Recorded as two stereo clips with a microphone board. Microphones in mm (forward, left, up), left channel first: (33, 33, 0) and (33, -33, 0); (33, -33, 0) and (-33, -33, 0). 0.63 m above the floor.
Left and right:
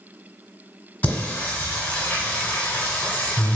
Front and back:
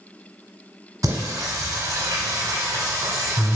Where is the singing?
155° left, 1.1 m.